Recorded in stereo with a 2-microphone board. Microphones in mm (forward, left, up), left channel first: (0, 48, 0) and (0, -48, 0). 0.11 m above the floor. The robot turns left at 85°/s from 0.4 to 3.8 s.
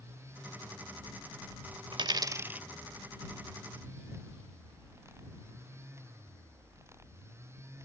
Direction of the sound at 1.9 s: 60° right (ahead or behind).